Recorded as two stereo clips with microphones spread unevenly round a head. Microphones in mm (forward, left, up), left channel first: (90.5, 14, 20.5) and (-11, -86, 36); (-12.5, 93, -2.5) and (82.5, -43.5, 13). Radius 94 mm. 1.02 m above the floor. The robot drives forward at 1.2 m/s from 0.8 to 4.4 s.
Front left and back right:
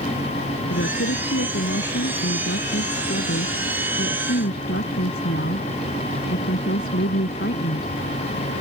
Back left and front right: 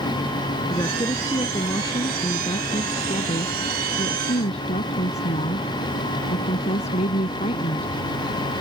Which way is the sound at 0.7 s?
55° left.